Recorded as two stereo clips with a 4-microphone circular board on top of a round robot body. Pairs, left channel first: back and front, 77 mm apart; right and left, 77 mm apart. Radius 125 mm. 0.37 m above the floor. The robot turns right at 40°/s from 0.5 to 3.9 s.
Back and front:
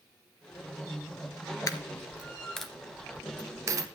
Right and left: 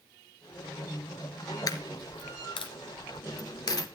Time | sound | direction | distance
1.7 | a dropped coin | 130° right | 1.5 m